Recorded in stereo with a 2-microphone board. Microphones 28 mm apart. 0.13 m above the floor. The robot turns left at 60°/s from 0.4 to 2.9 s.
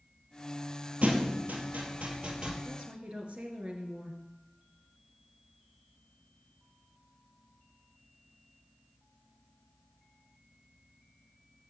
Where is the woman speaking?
45° right (ahead or behind), 1.9 m; by 4.2 s 50° right (ahead or behind), 1.9 m.